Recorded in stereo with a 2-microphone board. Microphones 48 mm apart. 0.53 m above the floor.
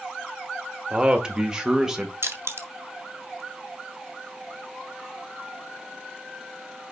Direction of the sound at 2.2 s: 60° right (ahead or behind).